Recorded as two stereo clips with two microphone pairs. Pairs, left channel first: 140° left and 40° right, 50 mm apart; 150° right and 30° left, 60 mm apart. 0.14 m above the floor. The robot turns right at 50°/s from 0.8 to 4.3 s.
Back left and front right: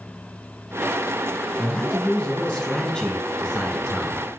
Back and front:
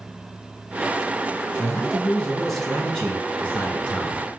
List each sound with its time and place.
1.6 s a man speaking: 90° left, 1.4 m; by 4.2 s 140° right, 1.4 m